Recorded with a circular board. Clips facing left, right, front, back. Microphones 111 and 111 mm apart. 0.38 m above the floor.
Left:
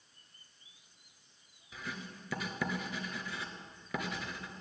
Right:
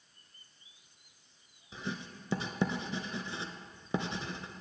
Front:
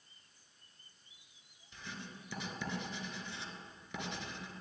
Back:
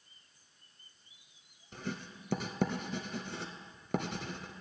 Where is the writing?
150° right, 0.8 m.